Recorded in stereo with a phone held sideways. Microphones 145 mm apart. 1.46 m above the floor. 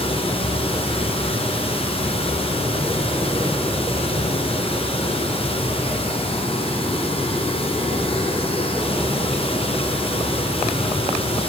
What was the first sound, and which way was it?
Running water, 40° left (ahead or behind).